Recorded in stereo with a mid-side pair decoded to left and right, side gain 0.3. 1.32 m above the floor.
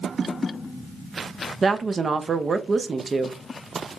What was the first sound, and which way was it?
A woman speaking, 50° right.